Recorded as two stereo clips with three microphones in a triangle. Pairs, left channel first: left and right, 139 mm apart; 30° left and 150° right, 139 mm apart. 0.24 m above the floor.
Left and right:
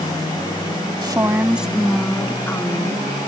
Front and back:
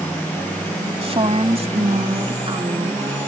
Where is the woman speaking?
135° right; by 3.0 s 160° left.